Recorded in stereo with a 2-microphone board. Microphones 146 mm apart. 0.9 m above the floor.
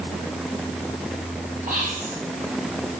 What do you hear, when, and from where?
1.7 s whispering: 65° right (ahead or behind), 4.5 m